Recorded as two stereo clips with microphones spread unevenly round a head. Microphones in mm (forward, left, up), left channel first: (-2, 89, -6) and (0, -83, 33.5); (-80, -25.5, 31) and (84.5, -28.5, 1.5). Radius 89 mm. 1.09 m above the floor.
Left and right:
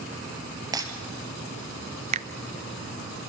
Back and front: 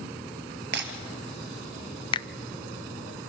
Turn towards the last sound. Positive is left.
turn(degrees=-125)